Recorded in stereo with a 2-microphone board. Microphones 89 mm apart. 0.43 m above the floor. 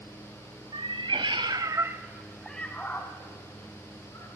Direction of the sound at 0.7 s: 80° right.